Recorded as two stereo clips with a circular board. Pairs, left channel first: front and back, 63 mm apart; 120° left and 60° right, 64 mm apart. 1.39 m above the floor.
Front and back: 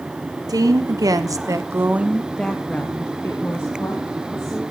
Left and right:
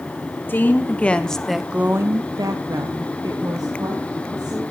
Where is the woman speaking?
Straight behind, 1.7 m; by 4.6 s 40° right, 3 m.